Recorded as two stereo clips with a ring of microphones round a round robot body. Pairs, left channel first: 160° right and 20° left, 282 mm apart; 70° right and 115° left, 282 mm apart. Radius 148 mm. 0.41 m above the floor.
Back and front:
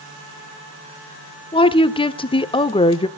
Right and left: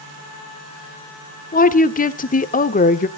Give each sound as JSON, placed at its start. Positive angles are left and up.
{"t": 1.5, "sound": "a woman speaking", "azimuth_deg": -100, "distance_m": 1.1}